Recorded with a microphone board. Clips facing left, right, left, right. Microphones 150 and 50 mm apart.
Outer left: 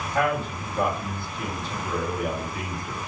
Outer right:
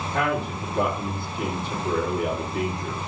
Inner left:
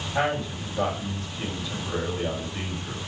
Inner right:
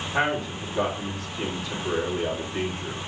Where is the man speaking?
60° right (ahead or behind), 3 m.